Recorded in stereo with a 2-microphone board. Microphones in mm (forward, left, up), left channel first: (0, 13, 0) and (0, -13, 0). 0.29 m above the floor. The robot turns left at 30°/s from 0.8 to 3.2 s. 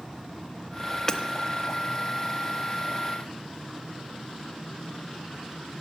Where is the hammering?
25° left (ahead or behind), 0.9 m.